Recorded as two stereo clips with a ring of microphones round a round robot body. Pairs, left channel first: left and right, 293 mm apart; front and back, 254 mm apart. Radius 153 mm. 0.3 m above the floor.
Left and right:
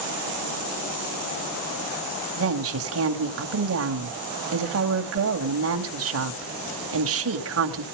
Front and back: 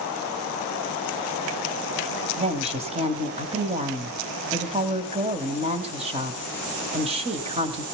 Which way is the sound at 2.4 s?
115° right.